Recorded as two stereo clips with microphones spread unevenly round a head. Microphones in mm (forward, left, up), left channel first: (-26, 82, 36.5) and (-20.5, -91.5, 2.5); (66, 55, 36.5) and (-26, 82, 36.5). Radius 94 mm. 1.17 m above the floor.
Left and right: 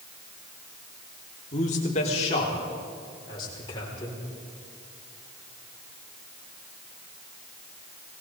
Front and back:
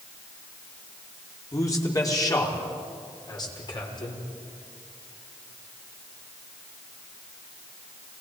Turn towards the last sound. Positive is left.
turn(degrees=20)